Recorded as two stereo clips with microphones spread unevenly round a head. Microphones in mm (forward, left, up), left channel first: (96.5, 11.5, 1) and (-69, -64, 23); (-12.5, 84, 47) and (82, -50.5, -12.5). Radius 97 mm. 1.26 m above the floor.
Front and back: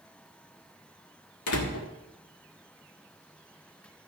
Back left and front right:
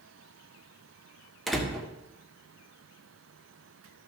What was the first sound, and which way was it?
A door slam, 40° left.